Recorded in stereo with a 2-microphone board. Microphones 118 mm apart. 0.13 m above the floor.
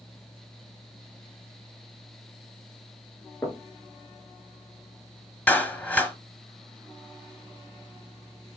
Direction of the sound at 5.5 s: 10° left (ahead or behind).